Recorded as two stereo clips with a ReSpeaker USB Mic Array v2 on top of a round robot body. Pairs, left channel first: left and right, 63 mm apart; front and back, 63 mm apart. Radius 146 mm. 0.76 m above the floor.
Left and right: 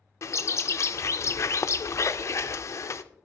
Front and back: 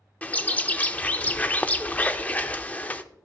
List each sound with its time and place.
0.2 s a bird: 60° left, 0.5 m